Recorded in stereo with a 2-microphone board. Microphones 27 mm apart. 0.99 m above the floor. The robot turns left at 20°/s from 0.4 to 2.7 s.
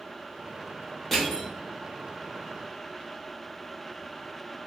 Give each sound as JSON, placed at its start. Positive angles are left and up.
{"t": 1.1, "sound": "crushing", "side_deg": 10, "distance_m": 1.2}